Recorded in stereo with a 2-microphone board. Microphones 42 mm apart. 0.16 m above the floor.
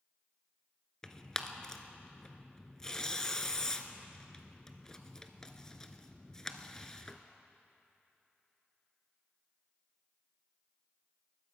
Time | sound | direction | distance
1.0 | tearing paper | 15° left (ahead or behind) | 0.9 m